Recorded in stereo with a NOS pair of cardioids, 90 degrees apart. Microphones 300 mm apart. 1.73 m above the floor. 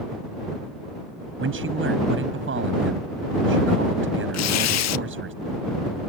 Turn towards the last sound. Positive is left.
turn(degrees=60)